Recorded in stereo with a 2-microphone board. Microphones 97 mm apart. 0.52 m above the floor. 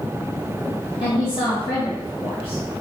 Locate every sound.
1.0 s a woman speaking: 65° left (ahead or behind), 3 m